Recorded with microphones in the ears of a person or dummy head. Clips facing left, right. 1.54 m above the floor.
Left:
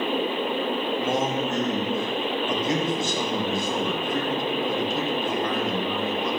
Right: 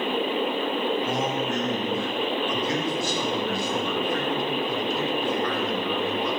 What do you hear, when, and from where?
1.0 s a man speaking: 20° left (ahead or behind), 2 m